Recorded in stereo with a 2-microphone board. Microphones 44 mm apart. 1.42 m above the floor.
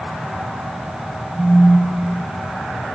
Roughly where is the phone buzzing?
Right.